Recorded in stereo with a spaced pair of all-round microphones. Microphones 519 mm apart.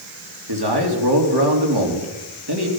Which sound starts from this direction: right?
A man speaking, at 0.5 s.